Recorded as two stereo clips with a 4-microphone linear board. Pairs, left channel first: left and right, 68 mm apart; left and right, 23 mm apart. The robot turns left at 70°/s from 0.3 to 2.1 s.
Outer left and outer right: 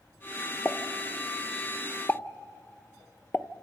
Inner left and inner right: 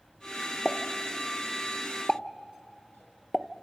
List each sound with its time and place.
0.7 s a pop: 15° left (ahead or behind), 0.5 m; by 3.5 s 25° left (ahead or behind), 0.5 m